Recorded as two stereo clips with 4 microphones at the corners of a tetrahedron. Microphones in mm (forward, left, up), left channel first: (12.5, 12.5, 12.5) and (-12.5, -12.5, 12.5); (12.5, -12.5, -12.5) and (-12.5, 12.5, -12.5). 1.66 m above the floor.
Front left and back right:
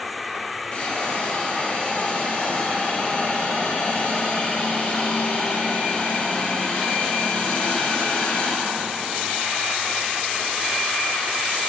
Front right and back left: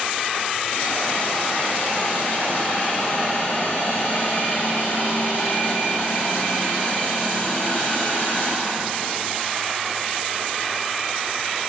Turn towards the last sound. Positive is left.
turn(degrees=-10)